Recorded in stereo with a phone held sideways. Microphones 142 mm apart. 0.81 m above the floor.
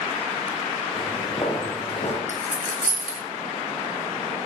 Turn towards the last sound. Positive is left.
turn(degrees=-70)  # may be behind; listen again after turning